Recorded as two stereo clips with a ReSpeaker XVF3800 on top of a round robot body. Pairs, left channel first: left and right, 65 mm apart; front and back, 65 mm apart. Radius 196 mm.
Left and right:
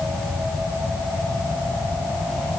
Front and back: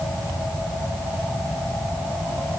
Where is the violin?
I don't hear a violin.